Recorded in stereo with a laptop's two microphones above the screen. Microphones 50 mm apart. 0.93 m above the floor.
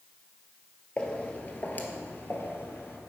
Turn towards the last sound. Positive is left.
turn(degrees=50)  # may be behind; listen again after turning